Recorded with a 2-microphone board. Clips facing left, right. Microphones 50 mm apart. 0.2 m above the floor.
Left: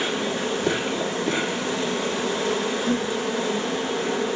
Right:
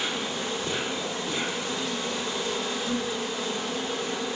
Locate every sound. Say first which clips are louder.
0.0 s an insect: left 5 dB; 70° left (ahead or behind), 1.3 m